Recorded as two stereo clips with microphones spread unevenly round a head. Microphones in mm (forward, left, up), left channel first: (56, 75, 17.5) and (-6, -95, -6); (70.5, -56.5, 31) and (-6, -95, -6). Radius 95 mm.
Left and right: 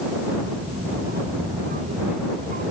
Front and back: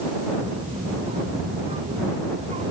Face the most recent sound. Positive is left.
turn(degrees=-160)